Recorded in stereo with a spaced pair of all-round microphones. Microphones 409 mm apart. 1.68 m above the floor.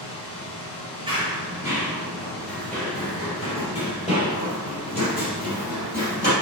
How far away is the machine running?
About 0.9 m.